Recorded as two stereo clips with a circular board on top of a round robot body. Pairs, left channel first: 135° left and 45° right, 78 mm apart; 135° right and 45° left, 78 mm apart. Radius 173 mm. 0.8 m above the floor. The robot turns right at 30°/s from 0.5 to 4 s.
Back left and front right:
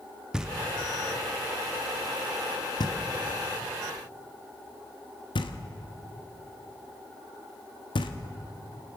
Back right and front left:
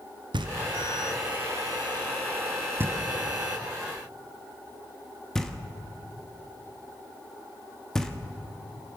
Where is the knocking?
35° left, 1.1 m; by 8.1 s 140° left, 1.1 m.